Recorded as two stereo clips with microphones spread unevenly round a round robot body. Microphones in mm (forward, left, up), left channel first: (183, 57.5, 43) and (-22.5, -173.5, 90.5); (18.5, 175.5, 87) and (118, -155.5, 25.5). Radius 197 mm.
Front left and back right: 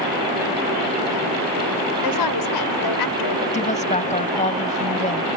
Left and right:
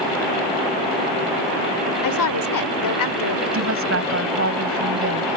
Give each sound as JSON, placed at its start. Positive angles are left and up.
{"t": 2.0, "sound": "a woman speaking", "azimuth_deg": 75}
{"t": 3.5, "sound": "a woman speaking", "azimuth_deg": -20}